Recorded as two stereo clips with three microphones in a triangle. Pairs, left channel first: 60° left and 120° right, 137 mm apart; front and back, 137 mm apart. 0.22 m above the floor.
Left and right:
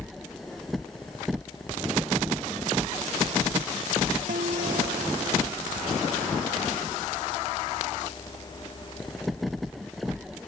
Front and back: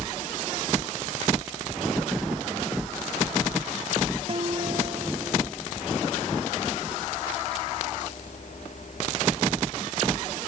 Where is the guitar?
135° right.